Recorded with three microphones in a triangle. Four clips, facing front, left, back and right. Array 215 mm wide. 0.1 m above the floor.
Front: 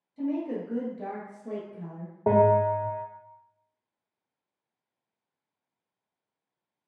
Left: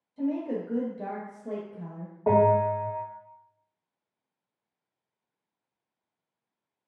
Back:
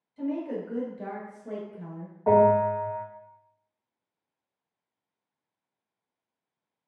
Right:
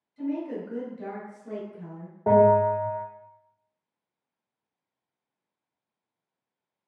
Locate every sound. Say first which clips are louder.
0.2 s a woman speaking: left 1 dB, front 1 dB; 70° left, 1.7 m
2.3 s a bell: right 3 dB, back 1 dB; 15° right, 2.5 m